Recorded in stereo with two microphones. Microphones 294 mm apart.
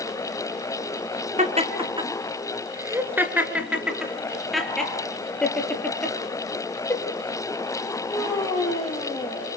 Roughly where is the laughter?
Right.